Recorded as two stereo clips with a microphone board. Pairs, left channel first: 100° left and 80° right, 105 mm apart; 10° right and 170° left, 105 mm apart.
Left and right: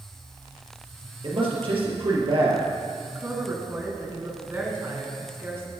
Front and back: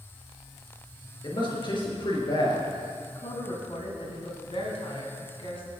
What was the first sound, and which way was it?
A man speaking, 50° right.